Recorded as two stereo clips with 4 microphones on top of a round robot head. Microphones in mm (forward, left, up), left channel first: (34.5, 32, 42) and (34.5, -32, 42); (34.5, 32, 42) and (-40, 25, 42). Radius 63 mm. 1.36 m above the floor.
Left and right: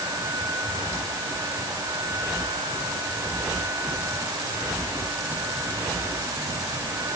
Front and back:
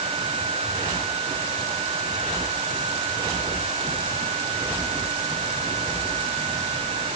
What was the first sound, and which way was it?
Only background noise.